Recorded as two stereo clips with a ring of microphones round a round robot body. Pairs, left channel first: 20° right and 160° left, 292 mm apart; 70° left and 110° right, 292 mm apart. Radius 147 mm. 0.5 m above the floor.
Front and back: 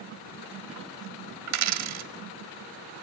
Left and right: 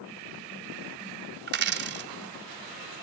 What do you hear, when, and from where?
1.5 s a dropped coin: 170° right, 1.4 m